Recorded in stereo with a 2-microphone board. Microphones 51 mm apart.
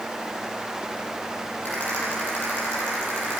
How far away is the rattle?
About 9 m.